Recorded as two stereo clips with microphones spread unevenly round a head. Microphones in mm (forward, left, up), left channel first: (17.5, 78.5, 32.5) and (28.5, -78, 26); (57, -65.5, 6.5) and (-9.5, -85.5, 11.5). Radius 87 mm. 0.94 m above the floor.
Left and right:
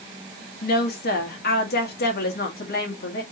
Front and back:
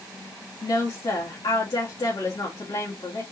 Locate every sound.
0.6 s a woman speaking: 75° left, 2 m